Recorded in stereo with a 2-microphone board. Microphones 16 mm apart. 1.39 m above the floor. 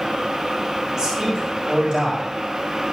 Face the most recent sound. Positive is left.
turn(degrees=-40)  # may be behind; listen again after turning